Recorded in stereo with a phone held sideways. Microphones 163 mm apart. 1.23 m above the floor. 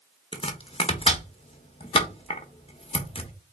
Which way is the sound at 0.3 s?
35° left (ahead or behind).